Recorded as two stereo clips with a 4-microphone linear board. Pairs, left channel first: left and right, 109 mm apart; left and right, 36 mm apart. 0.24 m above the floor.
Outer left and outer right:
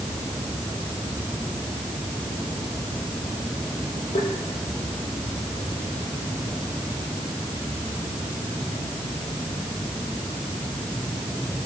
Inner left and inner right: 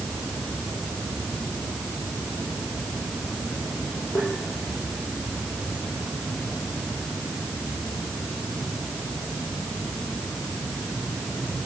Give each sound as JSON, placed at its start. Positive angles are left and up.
{"t": 4.2, "sound": "tapping", "side_deg": 80, "distance_m": 5.5}